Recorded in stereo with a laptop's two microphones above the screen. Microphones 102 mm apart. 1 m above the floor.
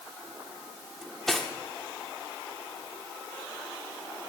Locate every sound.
1.0 s cutlery clinking: 5° left (ahead or behind), 1.2 m